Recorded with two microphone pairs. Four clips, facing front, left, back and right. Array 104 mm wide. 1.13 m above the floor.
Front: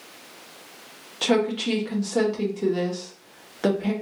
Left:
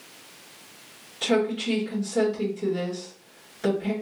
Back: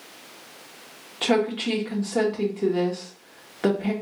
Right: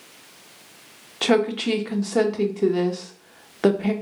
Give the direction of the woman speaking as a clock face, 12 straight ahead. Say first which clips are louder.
Right 4 dB, even; 3 o'clock.